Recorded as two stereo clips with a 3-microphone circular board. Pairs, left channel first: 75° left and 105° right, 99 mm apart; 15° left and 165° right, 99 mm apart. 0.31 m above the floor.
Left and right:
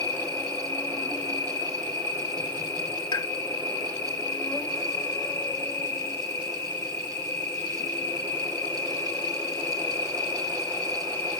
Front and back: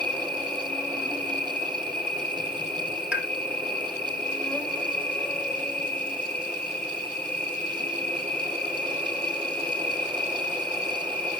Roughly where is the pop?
Behind left.